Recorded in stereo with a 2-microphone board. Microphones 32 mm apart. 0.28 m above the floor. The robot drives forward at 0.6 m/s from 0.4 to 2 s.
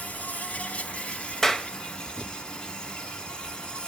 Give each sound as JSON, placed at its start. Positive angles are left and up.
{"t": 0.0, "sound": "an insect", "side_deg": 55, "distance_m": 1.1}
{"t": 1.4, "sound": "a clap", "side_deg": 15, "distance_m": 0.8}